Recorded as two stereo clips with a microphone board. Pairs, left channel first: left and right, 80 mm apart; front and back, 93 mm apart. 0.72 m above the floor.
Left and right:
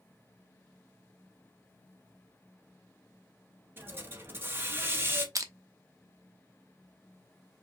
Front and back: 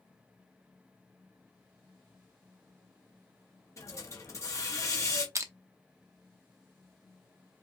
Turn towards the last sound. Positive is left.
turn(degrees=-130)